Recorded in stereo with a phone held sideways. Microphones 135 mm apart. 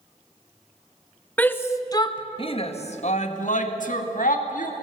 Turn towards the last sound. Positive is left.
turn(degrees=85)